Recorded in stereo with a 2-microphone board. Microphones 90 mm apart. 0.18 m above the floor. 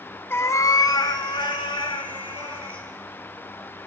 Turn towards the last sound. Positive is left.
turn(degrees=70)  # may be behind; listen again after turning